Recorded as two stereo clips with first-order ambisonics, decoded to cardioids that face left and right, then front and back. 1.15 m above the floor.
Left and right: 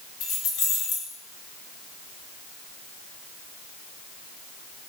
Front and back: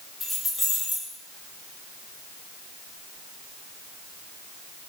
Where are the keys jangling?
85° left, 1.0 m.